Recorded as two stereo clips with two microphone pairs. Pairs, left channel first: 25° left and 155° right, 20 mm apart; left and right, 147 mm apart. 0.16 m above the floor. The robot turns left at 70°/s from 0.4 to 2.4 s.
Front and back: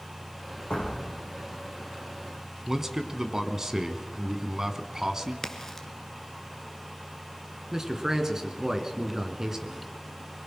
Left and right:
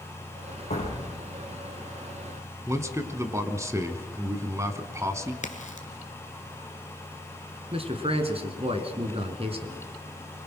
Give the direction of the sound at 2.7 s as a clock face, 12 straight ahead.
4 o'clock.